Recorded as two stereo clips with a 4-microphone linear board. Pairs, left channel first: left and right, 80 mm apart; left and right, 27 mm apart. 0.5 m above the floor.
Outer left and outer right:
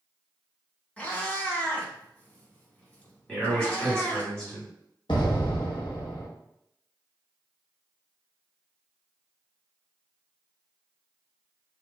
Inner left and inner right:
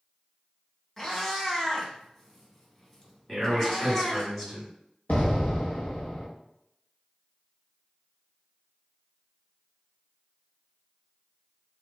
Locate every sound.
1.0 s a cat meowing: 20° left (ahead or behind), 0.7 m
3.3 s a man speaking: 10° left (ahead or behind), 1.5 m
5.1 s an explosion: 80° left, 0.8 m